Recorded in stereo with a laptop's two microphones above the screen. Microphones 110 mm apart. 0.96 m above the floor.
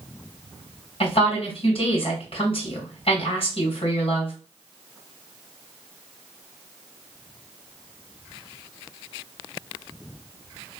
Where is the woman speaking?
65° left (ahead or behind), 2.5 m.